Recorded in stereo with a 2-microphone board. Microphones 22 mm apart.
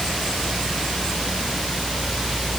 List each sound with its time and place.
Only background noise.